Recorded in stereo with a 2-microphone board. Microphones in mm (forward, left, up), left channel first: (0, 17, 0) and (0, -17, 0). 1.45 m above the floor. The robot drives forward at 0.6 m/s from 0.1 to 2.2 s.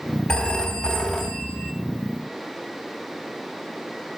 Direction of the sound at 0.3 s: 25° left (ahead or behind).